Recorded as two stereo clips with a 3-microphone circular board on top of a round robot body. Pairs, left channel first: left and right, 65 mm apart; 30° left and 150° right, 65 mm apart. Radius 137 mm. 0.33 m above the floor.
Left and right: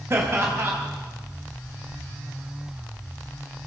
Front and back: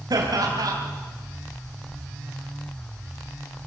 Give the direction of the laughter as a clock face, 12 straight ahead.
5 o'clock.